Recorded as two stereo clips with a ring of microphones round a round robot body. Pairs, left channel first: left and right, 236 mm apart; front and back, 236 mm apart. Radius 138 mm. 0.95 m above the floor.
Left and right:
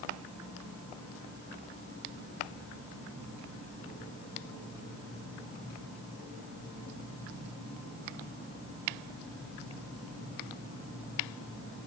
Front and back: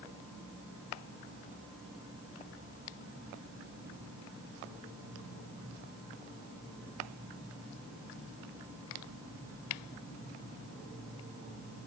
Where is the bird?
No bird in this recording.